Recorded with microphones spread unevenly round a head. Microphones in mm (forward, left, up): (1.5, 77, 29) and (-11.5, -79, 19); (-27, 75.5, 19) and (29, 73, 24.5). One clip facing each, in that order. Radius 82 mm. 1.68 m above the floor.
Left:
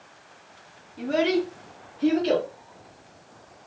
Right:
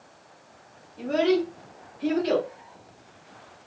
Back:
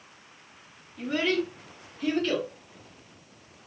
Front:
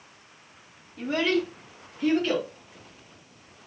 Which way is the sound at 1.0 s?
Straight ahead.